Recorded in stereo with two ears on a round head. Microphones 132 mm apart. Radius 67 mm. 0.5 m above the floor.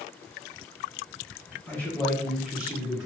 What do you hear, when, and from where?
1.7 s a man speaking: 20° left (ahead or behind), 1.2 m; by 3.1 s 20° right (ahead or behind), 1.1 m